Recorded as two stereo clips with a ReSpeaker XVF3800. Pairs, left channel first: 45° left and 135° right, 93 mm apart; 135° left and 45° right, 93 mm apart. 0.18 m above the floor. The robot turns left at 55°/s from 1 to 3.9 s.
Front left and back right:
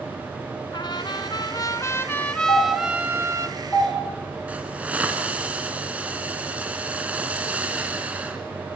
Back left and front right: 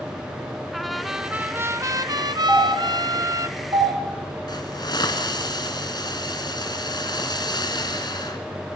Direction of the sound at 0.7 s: 45° left.